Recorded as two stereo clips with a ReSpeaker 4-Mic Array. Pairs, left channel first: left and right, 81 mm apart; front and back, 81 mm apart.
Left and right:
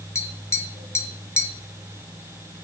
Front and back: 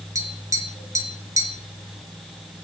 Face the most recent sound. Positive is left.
turn(degrees=140)